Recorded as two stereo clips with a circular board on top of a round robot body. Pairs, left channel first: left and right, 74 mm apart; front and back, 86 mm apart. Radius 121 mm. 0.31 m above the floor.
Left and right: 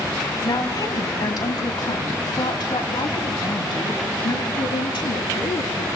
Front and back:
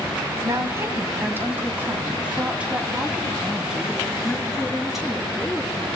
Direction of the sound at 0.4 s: 125° left.